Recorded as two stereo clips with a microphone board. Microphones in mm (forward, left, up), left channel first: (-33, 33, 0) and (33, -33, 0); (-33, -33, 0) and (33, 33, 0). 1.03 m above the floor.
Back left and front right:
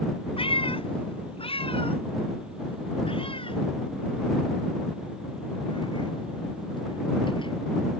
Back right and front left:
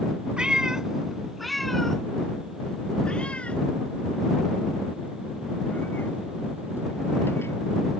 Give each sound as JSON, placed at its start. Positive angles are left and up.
{"t": 0.4, "sound": "a cat meowing", "azimuth_deg": 125}